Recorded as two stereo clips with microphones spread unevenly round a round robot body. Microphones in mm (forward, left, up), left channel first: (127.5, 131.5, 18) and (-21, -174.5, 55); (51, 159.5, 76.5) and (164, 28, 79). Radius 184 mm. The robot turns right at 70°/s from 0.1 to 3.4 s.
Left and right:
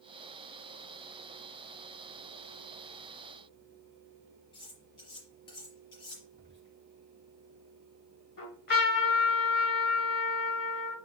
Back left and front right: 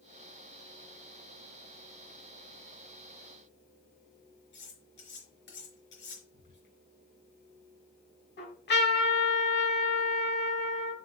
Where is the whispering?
140° left, 6 m.